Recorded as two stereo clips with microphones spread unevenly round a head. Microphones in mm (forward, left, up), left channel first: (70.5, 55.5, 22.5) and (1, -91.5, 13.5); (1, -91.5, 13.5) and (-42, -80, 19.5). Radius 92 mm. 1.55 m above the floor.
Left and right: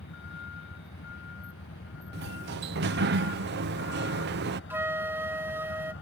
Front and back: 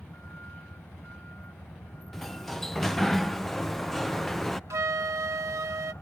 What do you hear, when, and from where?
0.0 s a vehicle: 65° left
2.1 s a sliding door: 100° right
4.7 s a flute: 165° left